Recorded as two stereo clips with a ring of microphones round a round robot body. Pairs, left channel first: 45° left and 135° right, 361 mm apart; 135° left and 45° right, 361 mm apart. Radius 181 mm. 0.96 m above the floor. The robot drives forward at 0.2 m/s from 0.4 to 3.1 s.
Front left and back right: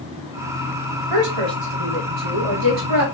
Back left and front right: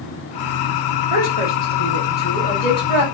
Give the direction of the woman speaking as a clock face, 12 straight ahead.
5 o'clock.